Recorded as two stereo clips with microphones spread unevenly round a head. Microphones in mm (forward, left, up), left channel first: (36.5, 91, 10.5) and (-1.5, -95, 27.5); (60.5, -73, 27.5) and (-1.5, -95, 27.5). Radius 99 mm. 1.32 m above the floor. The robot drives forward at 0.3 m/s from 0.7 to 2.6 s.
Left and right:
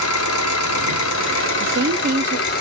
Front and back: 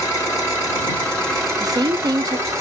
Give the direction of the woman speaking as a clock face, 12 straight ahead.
5 o'clock.